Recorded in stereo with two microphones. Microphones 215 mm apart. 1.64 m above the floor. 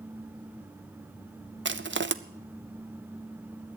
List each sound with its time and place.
1.6 s crushing: 60° right (ahead or behind), 0.6 m